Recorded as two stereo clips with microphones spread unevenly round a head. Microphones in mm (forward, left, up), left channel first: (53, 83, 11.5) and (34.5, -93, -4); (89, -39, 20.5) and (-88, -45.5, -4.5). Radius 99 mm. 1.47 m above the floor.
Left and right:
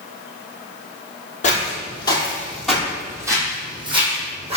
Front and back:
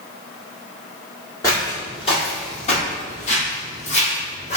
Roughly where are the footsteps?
Ahead left.